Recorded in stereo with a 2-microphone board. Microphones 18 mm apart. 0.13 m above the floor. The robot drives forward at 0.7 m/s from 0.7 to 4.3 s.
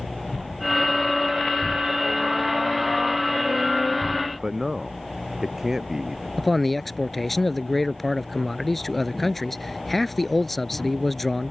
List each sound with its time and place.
4.4 s a man speaking: 20° right (ahead or behind)
6.4 s a man speaking: 10° left (ahead or behind)